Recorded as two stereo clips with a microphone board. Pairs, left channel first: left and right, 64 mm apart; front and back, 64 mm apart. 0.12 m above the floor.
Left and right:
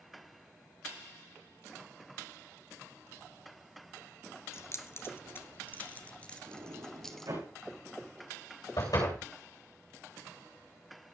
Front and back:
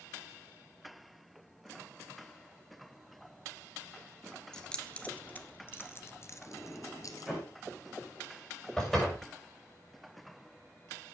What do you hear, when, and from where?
4.5 s keys jangling: 75° left, 1.4 m; by 7.3 s 5° left, 1.7 m
6.5 s a sliding door: 90° right, 9 m
8.8 s a door slam: 85° left, 7.5 m